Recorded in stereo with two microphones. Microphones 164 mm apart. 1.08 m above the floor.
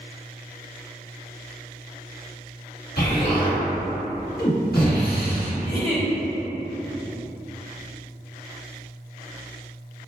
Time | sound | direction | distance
3.0 | an explosion | 70° left (ahead or behind) | 1.7 m
5.6 | a giggle | 50° left (ahead or behind) | 1.1 m